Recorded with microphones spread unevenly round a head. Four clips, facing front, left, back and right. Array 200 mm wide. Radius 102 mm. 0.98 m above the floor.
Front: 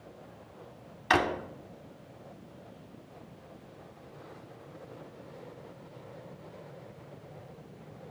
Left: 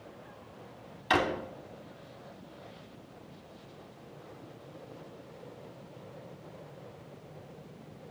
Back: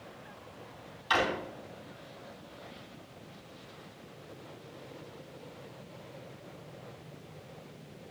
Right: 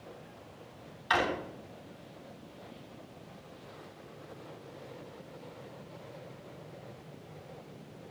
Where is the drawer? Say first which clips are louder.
Left 2 dB, front 3 dB; 50° left, 2.5 m.